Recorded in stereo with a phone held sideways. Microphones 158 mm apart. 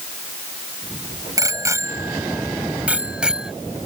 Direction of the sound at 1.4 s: 20° right (ahead or behind).